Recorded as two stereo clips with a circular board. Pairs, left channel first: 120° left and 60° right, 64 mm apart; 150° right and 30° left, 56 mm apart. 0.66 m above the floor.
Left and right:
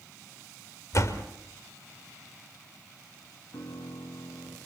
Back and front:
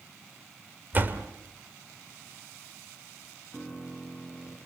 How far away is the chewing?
I don't hear chewing.